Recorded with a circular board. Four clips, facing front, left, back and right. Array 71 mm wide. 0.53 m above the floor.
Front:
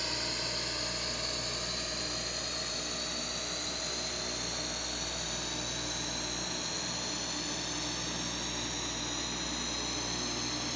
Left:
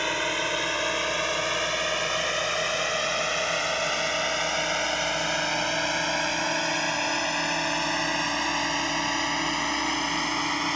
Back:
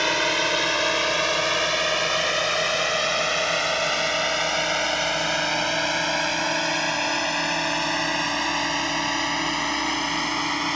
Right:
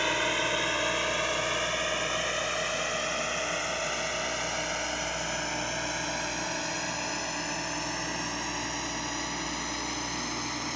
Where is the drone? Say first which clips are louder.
Left 1 dB, back 16 dB; 175° left; by 10.8 s 150° left.